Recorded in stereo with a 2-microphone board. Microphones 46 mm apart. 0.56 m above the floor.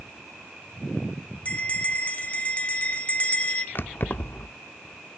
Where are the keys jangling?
50° left (ahead or behind), 0.8 m.